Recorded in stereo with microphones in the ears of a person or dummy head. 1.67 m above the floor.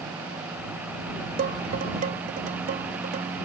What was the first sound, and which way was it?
Dishes clattering, 40° right (ahead or behind).